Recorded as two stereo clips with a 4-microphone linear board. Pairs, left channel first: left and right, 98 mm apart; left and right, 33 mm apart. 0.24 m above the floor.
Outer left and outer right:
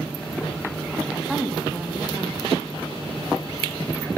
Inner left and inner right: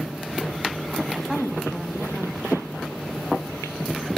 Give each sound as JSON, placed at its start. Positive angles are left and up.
{"t": 1.1, "sound": "a woman speaking", "side_deg": 0, "distance_m": 1.2}